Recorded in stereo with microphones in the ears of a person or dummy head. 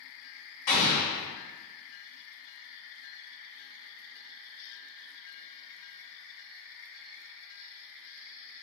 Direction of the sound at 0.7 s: 40° left (ahead or behind).